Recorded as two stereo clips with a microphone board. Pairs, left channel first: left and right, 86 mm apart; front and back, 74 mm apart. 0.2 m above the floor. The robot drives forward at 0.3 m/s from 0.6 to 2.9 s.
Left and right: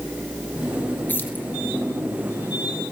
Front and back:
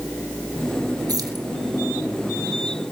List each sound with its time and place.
1.1 s keys jangling: 155° left, 2.5 m; by 1.4 s 160° left, 3 m